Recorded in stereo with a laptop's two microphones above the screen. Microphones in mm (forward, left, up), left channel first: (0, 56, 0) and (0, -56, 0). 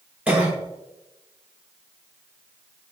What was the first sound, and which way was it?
A cough, 15° right (ahead or behind).